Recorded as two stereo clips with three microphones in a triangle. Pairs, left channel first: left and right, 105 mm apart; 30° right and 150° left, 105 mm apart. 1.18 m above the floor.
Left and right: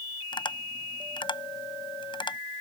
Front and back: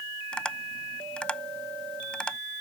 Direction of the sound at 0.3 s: 50° left.